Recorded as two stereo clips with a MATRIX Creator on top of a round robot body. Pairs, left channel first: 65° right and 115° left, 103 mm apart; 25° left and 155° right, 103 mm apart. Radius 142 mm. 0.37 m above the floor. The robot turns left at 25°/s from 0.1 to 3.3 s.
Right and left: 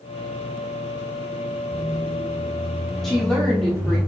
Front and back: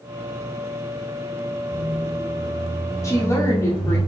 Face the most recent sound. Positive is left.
turn(degrees=10)